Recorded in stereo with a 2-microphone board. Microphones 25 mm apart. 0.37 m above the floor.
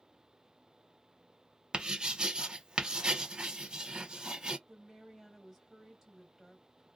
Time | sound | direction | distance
1.7 | writing | 35° right (ahead or behind) | 0.7 m
4.7 | a woman speaking | 15° right (ahead or behind) | 1.5 m